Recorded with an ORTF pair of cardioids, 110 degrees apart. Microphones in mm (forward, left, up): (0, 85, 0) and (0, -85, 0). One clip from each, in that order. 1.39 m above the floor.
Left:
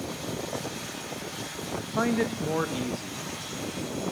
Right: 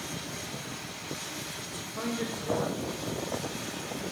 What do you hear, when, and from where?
1.8 s a man speaking: 55° left, 0.5 m